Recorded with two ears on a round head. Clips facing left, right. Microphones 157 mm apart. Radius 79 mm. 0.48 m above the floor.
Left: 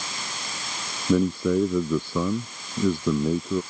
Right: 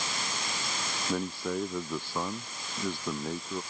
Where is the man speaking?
80° left.